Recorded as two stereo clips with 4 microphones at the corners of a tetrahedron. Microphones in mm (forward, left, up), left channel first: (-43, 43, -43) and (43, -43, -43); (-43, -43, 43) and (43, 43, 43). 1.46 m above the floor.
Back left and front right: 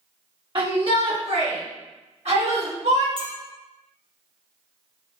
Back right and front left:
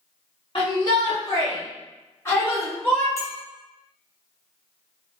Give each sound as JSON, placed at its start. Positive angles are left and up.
{"t": 0.6, "sound": "a shout", "azimuth_deg": -90, "distance_m": 1.6}
{"t": 3.2, "sound": "a clink", "azimuth_deg": -75, "distance_m": 1.2}